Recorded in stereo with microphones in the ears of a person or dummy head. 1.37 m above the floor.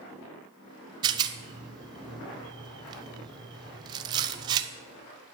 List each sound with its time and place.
1.0 s a rattle: 25° right (ahead or behind), 0.8 m